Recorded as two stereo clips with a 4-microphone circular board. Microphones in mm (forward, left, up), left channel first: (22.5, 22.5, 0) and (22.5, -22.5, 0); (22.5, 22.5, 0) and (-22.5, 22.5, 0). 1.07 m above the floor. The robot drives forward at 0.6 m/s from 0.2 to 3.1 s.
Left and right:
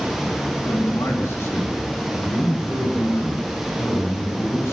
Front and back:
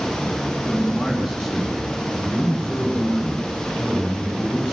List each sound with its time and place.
0.7 s a man speaking: 95° left, 9 m; by 4.7 s 105° left, 9 m